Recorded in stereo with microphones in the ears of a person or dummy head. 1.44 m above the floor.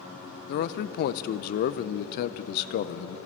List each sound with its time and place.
0.5 s a man speaking: 55° left (ahead or behind), 0.5 m